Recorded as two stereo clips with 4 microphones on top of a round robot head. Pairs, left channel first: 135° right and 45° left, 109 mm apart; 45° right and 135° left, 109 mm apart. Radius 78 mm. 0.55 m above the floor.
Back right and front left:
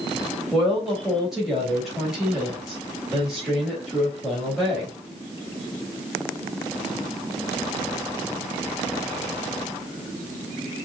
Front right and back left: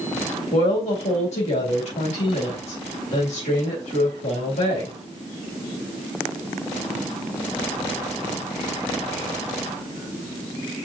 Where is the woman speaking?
40° right, 3.5 m.